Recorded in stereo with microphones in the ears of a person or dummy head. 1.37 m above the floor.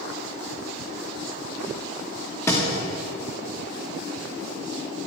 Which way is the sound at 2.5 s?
15° left (ahead or behind).